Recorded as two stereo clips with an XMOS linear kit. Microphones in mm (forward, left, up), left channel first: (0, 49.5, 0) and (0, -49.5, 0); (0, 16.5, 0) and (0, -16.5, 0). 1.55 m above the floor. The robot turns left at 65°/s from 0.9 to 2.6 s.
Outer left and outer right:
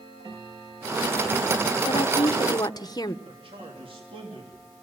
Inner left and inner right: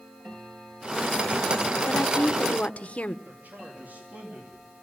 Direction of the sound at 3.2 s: 65° right (ahead or behind).